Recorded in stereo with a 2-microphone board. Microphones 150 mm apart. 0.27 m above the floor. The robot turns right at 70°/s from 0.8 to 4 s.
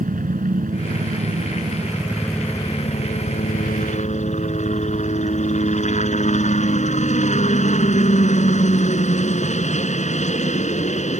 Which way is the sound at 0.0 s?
105° right.